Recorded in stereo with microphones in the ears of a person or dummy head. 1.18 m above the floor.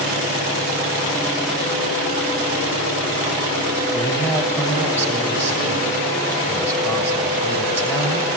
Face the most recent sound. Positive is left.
turn(degrees=15)  # may be behind; listen again after turning